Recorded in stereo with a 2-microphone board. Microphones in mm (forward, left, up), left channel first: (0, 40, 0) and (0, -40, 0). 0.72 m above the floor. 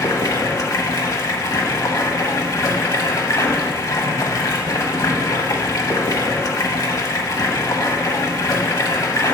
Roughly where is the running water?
Left.